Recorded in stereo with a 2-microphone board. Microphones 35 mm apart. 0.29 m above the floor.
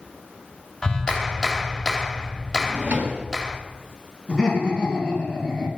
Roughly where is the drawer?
Right.